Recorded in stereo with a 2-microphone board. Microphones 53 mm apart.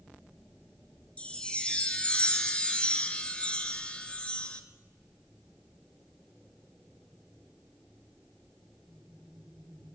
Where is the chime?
20° left (ahead or behind), 1.2 m.